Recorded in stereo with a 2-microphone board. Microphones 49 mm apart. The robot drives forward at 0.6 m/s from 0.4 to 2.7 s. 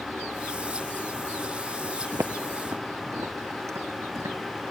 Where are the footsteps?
65° right (ahead or behind), 0.6 m.